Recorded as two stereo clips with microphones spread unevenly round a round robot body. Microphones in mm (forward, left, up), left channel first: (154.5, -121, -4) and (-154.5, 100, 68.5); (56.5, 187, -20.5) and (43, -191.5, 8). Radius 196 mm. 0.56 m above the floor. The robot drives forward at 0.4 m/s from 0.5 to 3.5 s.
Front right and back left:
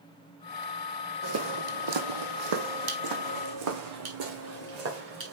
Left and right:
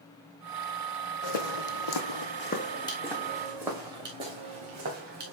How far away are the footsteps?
About 1.4 m.